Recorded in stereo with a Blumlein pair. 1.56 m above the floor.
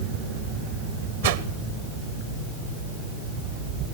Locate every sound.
1.2 s a whoosh: 60° right, 1.2 m